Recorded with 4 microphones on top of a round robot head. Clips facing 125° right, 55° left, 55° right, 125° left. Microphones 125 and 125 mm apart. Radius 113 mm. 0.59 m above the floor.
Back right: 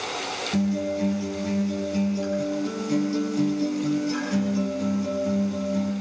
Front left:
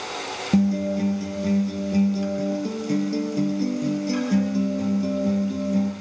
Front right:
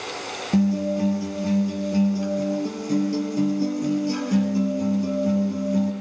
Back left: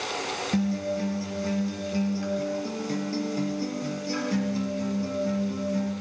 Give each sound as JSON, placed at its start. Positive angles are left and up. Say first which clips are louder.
{"t": 0.5, "sound": "a guitar", "louder": "front left 4 dB, front right 7 dB", "azimuth_deg": 15, "distance_m": 4.5}